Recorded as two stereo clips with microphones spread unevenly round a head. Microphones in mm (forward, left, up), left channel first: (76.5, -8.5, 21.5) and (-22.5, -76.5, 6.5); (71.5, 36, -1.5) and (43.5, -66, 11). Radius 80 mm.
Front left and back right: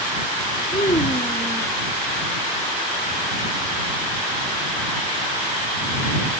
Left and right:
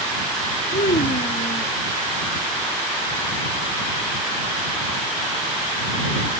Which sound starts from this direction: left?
A child speaking, at 0.7 s.